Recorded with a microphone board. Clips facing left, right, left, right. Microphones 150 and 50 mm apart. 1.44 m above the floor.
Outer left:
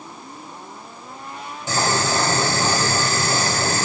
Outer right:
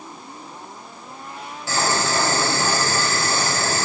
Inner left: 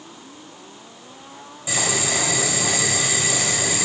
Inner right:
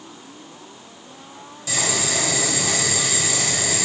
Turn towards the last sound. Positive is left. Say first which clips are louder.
# outer left 1 dB, inner left 1 dB
turn(degrees=20)  # may be behind; listen again after turning